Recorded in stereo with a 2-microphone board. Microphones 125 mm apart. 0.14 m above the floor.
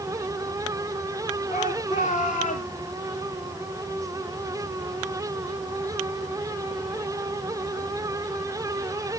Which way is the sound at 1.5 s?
80° left.